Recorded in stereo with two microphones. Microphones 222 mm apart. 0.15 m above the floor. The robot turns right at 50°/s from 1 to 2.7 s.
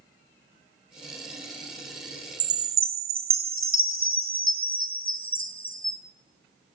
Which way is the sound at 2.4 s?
75° right (ahead or behind).